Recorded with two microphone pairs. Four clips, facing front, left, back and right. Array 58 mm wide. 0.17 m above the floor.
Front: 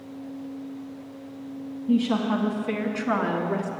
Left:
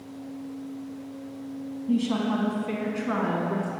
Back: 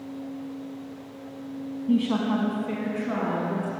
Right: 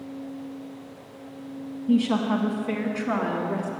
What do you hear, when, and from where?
1.9 s a woman speaking: 110° right, 1.0 m; by 3.7 s straight ahead, 1.9 m